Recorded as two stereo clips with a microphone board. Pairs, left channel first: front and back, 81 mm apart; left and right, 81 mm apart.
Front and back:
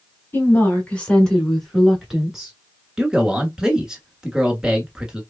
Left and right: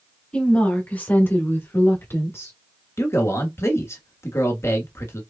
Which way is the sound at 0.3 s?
25° left.